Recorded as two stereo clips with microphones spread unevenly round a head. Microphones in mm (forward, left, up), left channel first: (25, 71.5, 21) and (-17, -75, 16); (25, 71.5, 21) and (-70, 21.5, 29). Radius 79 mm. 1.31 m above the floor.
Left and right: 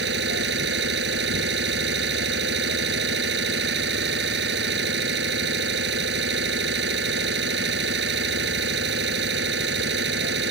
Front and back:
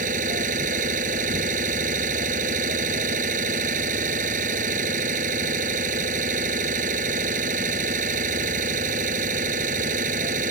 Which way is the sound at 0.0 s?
125° right.